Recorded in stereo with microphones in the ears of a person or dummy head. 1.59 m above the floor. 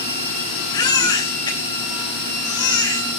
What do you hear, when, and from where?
0.7 s a baby crying: 25° left (ahead or behind), 3 m